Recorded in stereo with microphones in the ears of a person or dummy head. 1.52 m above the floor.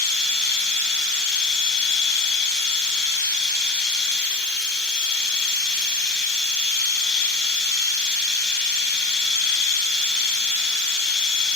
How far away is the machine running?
About 3 m.